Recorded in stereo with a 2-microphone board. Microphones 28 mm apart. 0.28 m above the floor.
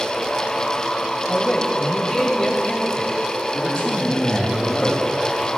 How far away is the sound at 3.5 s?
About 3.5 m.